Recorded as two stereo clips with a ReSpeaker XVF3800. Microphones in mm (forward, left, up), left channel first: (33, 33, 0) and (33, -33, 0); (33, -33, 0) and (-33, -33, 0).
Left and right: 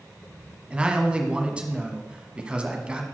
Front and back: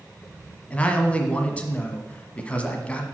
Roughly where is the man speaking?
Ahead right.